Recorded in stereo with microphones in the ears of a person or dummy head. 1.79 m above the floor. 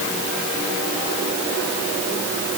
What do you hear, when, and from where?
Only background noise.